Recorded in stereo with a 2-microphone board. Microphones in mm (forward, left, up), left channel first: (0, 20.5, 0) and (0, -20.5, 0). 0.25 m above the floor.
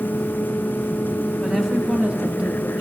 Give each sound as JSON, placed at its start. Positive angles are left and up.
{"t": 1.4, "sound": "a woman speaking", "side_deg": -15, "distance_m": 1.4}